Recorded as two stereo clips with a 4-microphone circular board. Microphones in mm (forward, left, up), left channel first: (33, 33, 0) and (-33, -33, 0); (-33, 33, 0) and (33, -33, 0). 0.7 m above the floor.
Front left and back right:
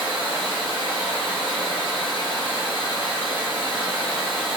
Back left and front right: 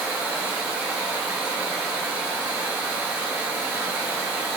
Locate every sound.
0.0 s running water: 25° left, 1.3 m